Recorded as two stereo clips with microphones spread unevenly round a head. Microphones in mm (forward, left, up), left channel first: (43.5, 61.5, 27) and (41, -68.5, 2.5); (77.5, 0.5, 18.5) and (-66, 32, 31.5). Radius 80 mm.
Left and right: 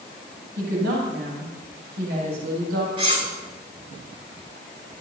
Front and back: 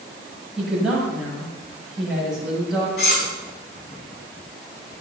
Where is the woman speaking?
105° right, 8.5 m.